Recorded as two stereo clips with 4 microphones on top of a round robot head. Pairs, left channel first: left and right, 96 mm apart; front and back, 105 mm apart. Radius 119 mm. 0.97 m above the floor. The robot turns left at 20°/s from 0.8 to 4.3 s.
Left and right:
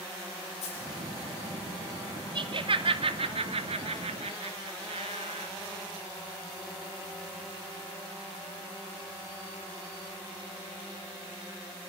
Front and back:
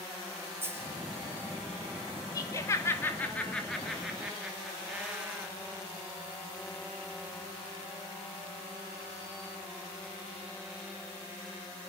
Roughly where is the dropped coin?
Left.